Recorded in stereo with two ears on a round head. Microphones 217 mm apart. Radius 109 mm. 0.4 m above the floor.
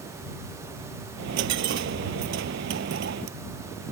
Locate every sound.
1.2 s a dropped coin: 50° right (ahead or behind)